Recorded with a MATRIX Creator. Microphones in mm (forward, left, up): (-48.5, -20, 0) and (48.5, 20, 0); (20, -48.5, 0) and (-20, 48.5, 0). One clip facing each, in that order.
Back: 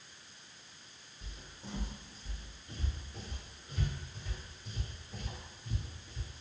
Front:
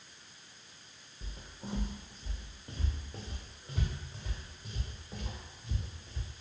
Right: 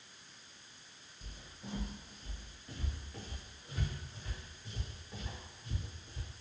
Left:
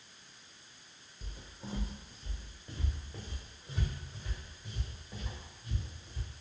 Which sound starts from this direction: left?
Footsteps, at 1.2 s.